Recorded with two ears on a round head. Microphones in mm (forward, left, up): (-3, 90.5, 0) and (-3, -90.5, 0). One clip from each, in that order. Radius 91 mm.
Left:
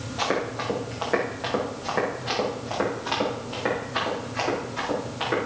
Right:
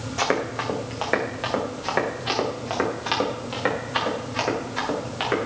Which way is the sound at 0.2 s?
65° right (ahead or behind).